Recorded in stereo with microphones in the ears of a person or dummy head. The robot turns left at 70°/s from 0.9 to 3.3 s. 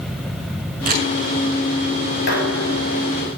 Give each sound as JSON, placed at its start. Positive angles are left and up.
{"t": 0.9, "sound": "a camera shutter", "side_deg": -45, "distance_m": 7.0}
{"t": 2.3, "sound": "dishes clattering", "azimuth_deg": 125, "distance_m": 5.5}